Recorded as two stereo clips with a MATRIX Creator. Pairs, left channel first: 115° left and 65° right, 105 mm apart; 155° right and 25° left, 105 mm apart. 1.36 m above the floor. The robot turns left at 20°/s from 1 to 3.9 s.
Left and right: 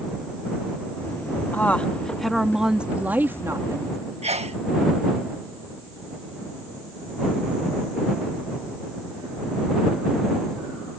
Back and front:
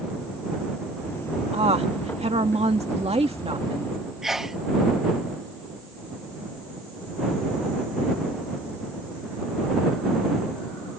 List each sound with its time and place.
1.5 s a woman speaking: 40° left; by 4.0 s 10° right
4.2 s a sneeze: 65° right